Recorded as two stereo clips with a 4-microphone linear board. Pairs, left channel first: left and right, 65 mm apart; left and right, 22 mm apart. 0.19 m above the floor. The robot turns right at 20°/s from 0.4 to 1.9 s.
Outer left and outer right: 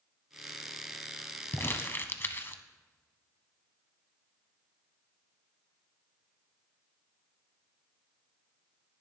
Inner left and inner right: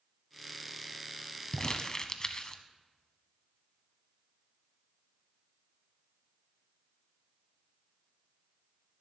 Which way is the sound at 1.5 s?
35° left (ahead or behind).